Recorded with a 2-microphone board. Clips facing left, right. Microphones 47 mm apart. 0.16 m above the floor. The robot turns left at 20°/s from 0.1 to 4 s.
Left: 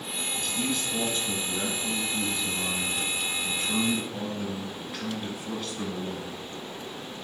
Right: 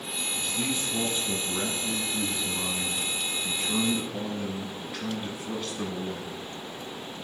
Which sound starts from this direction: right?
A man speaking, at 0.4 s.